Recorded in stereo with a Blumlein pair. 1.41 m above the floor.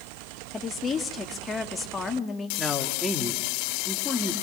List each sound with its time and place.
0.5 s a woman speaking: 15° left, 2.5 m
2.6 s a man speaking: 5° left, 3 m